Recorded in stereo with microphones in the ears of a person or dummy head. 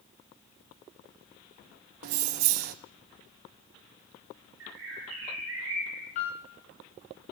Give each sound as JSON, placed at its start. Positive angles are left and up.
{"t": 2.0, "sound": "keys jangling", "side_deg": -50, "distance_m": 0.6}
{"t": 4.6, "sound": "a bird", "side_deg": -70, "distance_m": 3.5}
{"t": 6.2, "sound": "a piano", "side_deg": 45, "distance_m": 2.5}